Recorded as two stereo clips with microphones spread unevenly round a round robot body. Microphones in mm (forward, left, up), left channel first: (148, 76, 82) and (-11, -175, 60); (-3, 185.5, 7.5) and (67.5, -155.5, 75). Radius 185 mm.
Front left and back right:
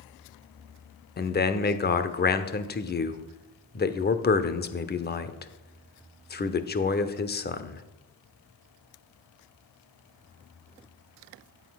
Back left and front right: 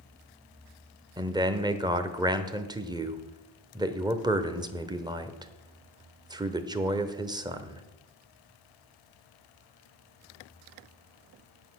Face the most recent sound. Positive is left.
turn(degrees=5)